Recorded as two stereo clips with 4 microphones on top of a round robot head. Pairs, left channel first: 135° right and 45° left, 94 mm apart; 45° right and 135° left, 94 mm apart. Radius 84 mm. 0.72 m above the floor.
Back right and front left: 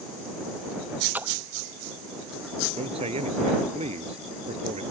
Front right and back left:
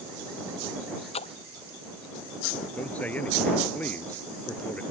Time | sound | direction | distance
1.1 | a splash | 25° right | ?
2.8 | a man speaking | 30° left | ?